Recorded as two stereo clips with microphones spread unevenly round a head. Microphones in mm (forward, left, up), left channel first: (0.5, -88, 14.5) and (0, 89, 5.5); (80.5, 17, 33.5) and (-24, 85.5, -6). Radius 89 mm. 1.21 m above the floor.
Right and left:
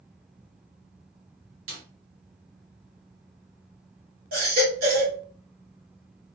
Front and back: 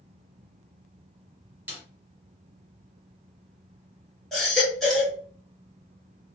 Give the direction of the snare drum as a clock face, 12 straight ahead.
10 o'clock.